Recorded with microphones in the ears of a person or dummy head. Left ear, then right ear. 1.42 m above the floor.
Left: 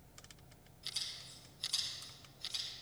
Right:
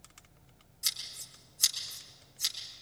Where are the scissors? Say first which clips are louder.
Right 6 dB; 60° right (ahead or behind), 6.5 m.